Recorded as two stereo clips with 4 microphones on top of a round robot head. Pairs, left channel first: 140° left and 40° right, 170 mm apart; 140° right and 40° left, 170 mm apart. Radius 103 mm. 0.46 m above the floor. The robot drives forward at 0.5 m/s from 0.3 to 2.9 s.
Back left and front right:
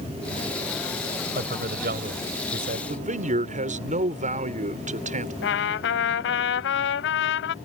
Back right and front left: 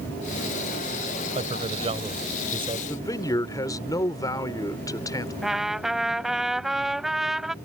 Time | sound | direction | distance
1.4 | a man speaking | 10° right | ?
2.9 | a man speaking | 70° right | ?
5.4 | a trumpet | 130° left | ?